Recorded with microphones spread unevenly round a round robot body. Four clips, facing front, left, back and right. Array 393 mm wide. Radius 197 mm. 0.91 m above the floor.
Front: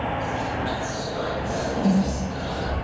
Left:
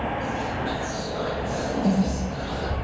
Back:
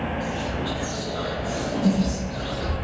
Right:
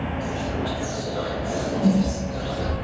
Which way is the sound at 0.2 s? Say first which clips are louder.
Even, front 1 dB; 85° right.